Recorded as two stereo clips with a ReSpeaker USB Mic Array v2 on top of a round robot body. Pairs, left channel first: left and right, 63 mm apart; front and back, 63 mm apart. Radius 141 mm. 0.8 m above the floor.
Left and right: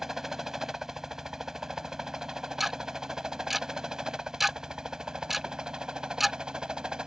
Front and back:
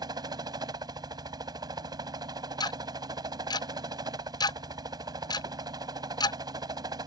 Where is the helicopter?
175° right; by 7.1 s 170° right.